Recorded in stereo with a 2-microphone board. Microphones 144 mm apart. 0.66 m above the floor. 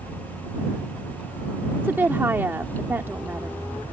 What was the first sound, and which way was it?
A woman speaking, 15° right (ahead or behind).